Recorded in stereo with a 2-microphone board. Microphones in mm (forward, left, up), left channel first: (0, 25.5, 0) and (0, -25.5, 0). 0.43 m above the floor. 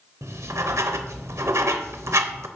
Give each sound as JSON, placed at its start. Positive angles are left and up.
{"t": 0.2, "sound": "writing", "side_deg": -70, "distance_m": 0.7}